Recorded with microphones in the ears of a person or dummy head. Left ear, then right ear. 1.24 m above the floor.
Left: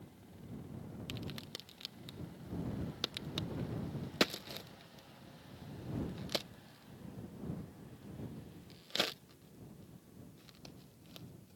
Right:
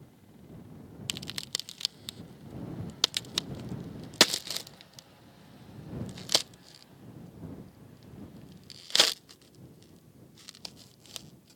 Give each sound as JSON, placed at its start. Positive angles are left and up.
{"t": 1.1, "sound": "a crack", "side_deg": -40}